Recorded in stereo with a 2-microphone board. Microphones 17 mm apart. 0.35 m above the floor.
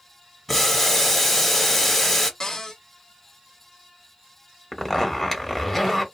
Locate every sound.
0.5 s boiling: 10° left (ahead or behind), 1.1 m
2.4 s a cupboard door: 40° left (ahead or behind), 0.8 m
4.7 s a zipper: 15° left (ahead or behind), 1.1 m